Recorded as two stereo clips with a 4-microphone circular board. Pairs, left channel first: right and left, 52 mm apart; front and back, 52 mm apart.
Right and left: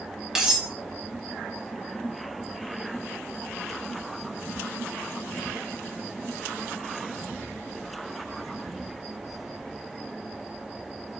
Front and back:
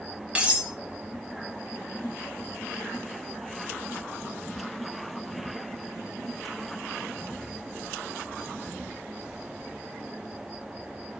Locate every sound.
0.3 s cutlery clinking: 155° left, 0.6 m